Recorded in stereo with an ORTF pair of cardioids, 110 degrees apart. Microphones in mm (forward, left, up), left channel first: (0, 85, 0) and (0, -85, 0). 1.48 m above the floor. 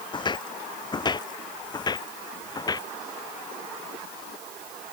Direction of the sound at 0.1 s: 25° left.